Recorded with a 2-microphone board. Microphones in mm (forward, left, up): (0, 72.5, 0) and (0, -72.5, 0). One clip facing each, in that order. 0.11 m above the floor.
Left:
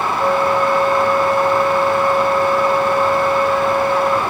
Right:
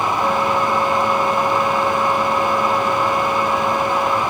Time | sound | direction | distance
0.2 | a flute | 50° left (ahead or behind) | 2.5 m